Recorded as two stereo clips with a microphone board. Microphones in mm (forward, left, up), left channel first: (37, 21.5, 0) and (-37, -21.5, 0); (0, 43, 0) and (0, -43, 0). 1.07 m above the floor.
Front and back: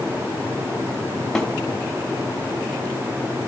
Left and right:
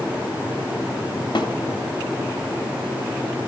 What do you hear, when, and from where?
1.4 s a snare drum: 115° left, 2.5 m